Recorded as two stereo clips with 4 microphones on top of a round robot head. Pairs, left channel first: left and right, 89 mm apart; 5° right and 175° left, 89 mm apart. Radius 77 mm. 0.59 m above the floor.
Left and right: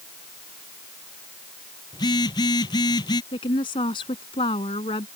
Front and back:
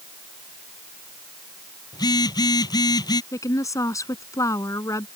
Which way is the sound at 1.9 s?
35° left.